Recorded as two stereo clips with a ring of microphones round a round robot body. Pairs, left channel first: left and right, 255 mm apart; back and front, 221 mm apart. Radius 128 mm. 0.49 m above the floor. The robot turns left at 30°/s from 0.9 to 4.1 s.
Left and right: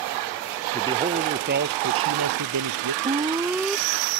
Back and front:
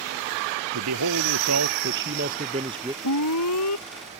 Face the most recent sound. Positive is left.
turn(degrees=170)